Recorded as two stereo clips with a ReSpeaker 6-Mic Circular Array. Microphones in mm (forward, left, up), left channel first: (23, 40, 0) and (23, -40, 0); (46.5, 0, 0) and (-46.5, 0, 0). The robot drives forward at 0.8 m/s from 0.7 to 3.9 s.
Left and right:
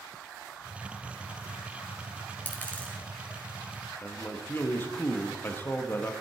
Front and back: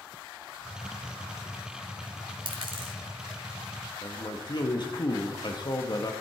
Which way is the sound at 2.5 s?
155° left.